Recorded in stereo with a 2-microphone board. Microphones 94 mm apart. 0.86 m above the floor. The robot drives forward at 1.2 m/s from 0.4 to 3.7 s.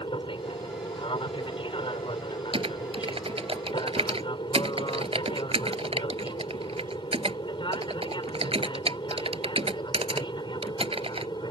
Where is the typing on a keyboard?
75° right (ahead or behind); by 11.3 s 85° right.